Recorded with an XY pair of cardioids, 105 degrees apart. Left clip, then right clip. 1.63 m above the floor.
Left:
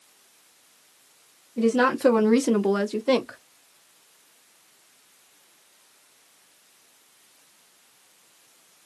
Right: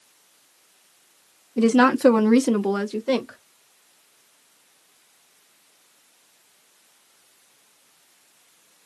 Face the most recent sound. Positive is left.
turn(degrees=20)